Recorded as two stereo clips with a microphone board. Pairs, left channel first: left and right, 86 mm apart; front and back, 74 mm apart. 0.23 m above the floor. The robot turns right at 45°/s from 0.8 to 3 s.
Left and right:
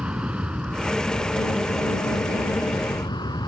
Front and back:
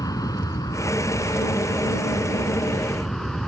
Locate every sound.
0.0 s an aircraft: 15° right; by 3.5 s 85° left